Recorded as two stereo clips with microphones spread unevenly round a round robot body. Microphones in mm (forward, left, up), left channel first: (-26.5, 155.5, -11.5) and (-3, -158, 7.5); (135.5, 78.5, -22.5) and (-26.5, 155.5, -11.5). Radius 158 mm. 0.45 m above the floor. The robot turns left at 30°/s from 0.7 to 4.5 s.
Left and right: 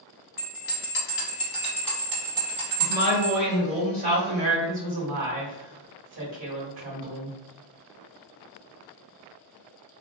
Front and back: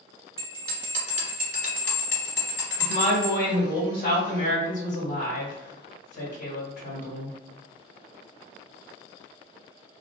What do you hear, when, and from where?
0.4 s a bell: 40° left, 1.8 m; by 3.4 s 40° right, 1.8 m
2.8 s a woman speaking: 15° left, 1.7 m; by 7.4 s 35° right, 1.7 m